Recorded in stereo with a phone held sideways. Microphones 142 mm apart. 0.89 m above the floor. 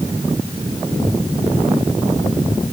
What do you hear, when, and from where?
Only background noise.